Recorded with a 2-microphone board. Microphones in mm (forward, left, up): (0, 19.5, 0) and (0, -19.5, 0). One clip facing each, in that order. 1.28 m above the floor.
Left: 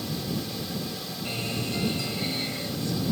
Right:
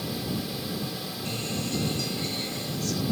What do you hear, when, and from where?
1.2 s a guitar: 25° left (ahead or behind)